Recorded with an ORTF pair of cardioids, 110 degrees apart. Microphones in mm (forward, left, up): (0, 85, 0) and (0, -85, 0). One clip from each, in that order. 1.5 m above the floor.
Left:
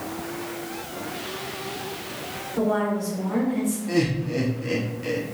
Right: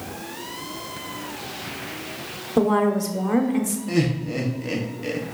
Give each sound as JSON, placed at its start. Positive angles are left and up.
{"t": 2.6, "sound": "a woman speaking", "azimuth_deg": -70, "distance_m": 1.0}
{"t": 3.9, "sound": "laughter", "azimuth_deg": -15, "distance_m": 0.8}